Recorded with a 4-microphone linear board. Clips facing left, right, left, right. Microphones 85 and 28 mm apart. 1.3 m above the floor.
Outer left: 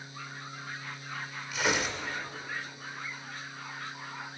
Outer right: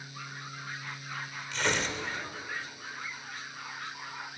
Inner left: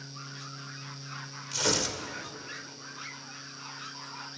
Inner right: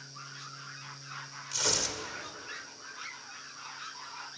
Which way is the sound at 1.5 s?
5° left (ahead or behind).